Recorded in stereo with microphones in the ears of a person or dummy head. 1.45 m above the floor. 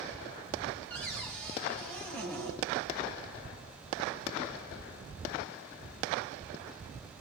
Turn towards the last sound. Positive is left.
turn(degrees=10)  # may be behind; listen again after turning